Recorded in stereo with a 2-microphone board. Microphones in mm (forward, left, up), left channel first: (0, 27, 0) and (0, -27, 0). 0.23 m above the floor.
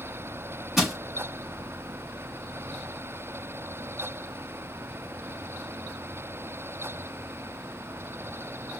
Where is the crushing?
5° right (ahead or behind), 0.9 m.